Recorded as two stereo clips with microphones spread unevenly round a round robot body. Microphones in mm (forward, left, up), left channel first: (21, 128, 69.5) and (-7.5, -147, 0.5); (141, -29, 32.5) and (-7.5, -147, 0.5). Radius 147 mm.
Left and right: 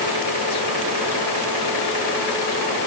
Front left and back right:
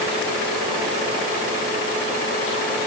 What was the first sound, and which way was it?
Only background noise.